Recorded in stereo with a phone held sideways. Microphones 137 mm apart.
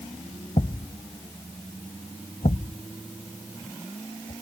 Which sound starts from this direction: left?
A thud, at 0.6 s.